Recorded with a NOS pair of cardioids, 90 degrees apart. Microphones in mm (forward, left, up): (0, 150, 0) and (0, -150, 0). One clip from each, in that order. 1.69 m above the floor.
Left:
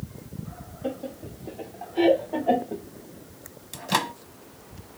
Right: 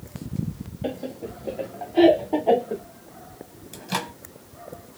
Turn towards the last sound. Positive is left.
turn(degrees=20)